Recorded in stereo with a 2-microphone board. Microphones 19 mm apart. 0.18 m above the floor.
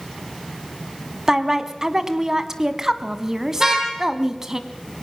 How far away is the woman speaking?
About 1.5 m.